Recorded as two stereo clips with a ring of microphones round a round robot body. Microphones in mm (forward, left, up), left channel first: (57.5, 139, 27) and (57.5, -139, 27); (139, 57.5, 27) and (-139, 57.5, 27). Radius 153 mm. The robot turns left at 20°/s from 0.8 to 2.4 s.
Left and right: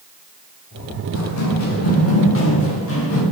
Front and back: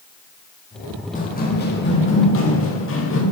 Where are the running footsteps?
65° left, 7.5 m; by 3.2 s 50° left, 9 m.